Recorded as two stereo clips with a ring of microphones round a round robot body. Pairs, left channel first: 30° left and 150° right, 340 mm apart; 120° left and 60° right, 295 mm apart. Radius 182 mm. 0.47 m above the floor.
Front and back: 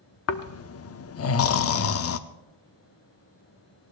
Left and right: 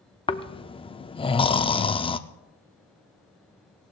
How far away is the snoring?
About 0.6 m.